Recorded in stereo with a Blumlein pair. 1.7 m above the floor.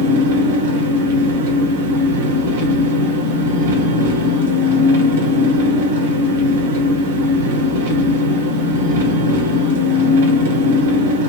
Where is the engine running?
55° right, 0.8 m.